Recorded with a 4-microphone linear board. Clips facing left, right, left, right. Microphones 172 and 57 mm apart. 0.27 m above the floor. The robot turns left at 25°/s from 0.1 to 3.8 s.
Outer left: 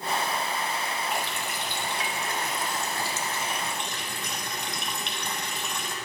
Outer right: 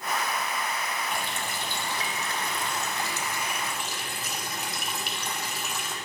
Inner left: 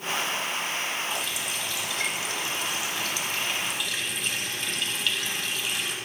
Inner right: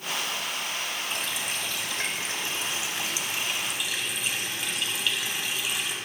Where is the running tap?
105° right, 1.0 m; by 6.0 s 175° right, 1.0 m.